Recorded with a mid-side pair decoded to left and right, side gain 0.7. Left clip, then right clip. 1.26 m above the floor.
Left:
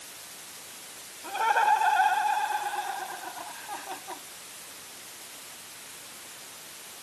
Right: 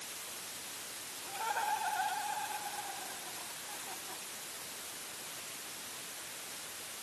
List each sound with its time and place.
1.2 s laughter: 45° left; by 4.2 s 50° left